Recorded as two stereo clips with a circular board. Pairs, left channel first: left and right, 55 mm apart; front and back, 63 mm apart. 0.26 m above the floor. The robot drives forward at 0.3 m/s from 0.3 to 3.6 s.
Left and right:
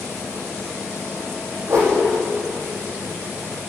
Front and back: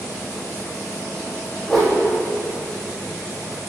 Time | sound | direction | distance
1.7 | a whoosh | 85° right | 5 m